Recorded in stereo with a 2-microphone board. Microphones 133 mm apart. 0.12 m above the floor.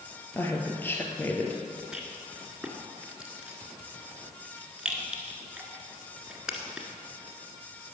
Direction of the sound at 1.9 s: 5° right (ahead or behind).